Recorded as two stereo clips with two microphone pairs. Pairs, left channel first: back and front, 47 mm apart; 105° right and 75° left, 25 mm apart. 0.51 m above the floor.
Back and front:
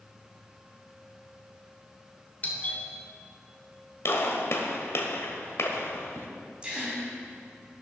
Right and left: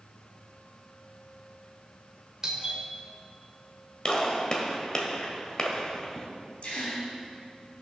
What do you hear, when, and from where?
2.4 s a doorbell: 130° left, 1.8 m
4.0 s a gunshot: 160° right, 1.4 m
6.6 s a gasp: 70° right, 3 m